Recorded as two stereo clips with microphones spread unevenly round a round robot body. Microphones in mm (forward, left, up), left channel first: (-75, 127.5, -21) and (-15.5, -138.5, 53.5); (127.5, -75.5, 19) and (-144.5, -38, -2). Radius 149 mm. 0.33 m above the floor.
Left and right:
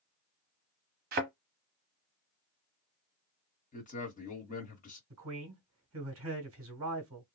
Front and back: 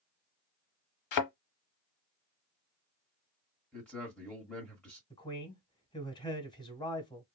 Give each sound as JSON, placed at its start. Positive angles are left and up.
{"t": 1.1, "sound": "a thud", "azimuth_deg": -10, "distance_m": 0.9}
{"t": 3.7, "sound": "a man speaking", "azimuth_deg": 80, "distance_m": 1.1}
{"t": 5.1, "sound": "a man speaking", "azimuth_deg": -75, "distance_m": 1.3}